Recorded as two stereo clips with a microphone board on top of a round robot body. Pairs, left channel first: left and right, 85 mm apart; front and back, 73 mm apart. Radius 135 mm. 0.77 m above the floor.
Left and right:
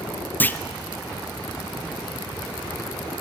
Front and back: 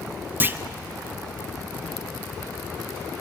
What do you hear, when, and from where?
0.4 s a clunk: 140° left, 1.1 m